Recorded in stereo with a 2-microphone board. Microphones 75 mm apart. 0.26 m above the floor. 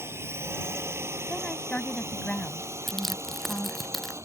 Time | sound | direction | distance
0.0 | a drone | 35° right (ahead or behind) | ?
1.3 | a woman speaking | 10° left (ahead or behind) | ?
2.9 | crushing | 5° left (ahead or behind) | ?